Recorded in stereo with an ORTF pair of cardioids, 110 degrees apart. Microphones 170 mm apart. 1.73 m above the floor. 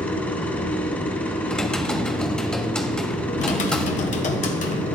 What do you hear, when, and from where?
0.0 s a machine running: 10° left, 1.4 m
1.5 s typing on a keyboard: 5° left, 1.1 m
3.4 s typing on a keyboard: 50° left, 0.9 m